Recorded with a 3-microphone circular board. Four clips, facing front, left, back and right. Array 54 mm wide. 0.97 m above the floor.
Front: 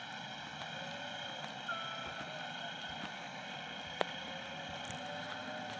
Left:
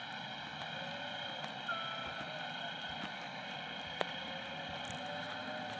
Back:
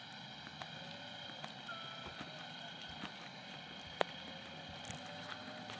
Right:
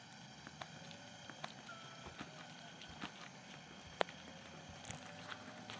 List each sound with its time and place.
0.0 s a helicopter: 55° left